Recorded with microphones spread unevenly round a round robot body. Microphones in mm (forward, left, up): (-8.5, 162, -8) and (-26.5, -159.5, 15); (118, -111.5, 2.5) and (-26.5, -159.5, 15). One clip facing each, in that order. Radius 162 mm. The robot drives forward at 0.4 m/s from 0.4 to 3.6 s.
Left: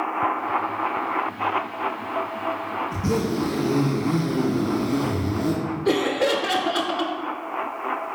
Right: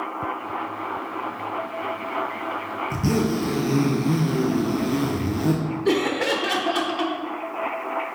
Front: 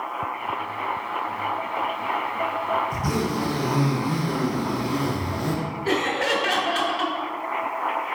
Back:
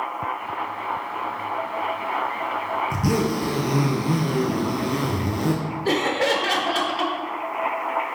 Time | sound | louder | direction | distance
2.9 | a zipper | right 2 dB, back 3 dB | 150° right | 1.6 m
5.8 | laughter | left 1 dB, back 3 dB | straight behind | 0.9 m